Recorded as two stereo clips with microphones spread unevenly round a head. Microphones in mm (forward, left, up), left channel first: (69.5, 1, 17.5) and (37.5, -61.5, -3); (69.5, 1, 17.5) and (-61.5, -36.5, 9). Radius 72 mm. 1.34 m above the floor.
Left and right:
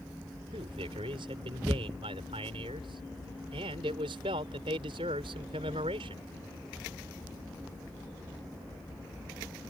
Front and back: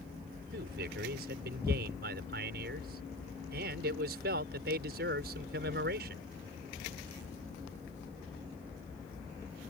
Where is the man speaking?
155° right.